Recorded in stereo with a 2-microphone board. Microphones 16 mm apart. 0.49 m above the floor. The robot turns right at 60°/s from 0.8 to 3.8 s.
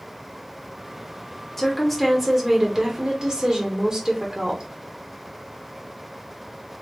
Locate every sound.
1.6 s a woman speaking: 155° left, 1.1 m; by 4.6 s 70° right, 1.1 m